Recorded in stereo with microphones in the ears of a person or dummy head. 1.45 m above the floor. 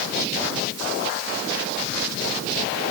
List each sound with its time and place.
Only background noise.